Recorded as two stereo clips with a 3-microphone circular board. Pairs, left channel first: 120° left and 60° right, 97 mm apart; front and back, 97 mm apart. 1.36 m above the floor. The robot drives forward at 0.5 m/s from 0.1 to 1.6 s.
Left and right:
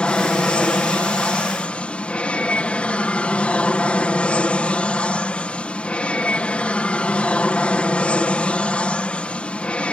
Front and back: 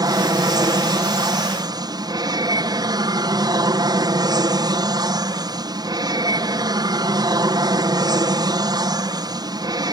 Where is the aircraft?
165° right.